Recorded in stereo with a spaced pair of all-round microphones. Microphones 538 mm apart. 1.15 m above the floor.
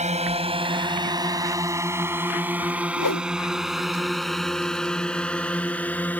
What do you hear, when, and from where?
0.0 s a drone: 10° right (ahead or behind); by 6.2 s 5° left (ahead or behind)
3.0 s a whoosh: 35° left (ahead or behind)